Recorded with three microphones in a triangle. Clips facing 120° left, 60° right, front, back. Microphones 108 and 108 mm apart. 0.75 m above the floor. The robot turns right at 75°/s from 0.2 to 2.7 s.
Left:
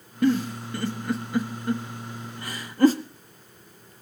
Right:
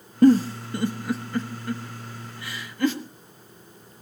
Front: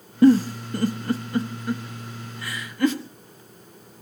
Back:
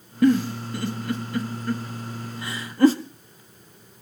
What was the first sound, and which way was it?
A giggle, 40° right.